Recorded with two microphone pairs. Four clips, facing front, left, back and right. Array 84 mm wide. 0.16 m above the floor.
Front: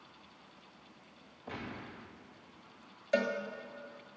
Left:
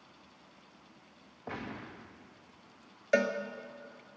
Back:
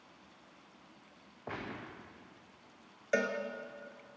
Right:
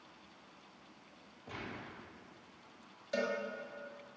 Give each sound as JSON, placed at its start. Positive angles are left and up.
{"t": 1.5, "sound": "a gunshot", "azimuth_deg": 130, "distance_m": 3.0}
{"t": 3.1, "sound": "a cowbell", "azimuth_deg": 105, "distance_m": 1.4}